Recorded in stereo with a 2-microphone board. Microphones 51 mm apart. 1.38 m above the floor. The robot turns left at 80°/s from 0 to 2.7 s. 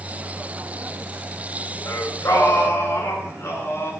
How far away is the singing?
About 8.5 m.